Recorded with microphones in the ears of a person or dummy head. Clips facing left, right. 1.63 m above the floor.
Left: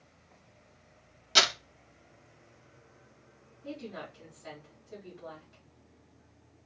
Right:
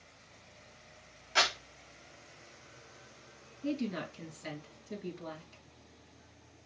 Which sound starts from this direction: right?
A woman speaking, at 3.6 s.